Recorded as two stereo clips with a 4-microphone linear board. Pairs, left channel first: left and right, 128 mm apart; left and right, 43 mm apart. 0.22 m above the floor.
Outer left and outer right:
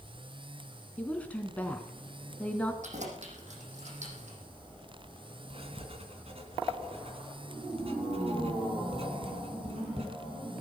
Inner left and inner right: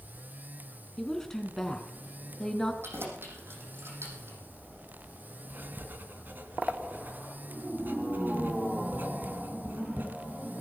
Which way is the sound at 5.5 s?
50° right (ahead or behind).